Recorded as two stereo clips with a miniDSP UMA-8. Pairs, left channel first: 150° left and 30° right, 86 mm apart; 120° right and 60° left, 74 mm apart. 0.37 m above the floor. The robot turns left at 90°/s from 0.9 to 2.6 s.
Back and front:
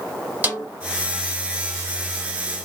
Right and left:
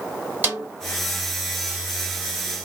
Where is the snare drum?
20° left, 1.4 m.